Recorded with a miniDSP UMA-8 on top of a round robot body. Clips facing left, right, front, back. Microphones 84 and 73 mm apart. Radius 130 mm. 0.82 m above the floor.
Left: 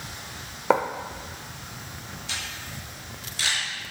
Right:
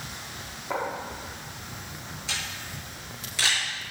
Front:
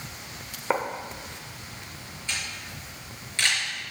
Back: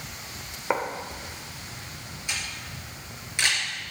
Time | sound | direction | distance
0.7 | writing | 85° left | 1.1 m
2.3 | a camera shutter | 105° right | 5.5 m